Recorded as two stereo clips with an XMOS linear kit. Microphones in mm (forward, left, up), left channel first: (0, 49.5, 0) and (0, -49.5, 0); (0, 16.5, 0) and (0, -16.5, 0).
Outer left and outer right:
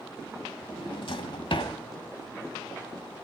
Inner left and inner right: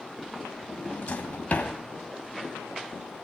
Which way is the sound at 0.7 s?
60° left (ahead or behind).